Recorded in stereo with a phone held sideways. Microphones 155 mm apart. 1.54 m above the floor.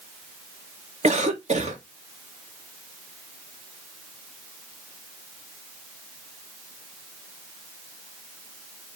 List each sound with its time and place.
1.0 s a cough: 50° right (ahead or behind), 2.0 m